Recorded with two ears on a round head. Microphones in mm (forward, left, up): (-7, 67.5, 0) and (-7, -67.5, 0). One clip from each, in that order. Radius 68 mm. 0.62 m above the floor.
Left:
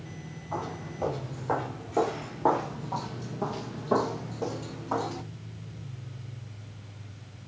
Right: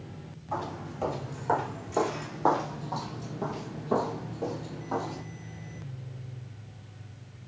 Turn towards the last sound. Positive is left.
turn(degrees=60)  # may be behind; listen again after turning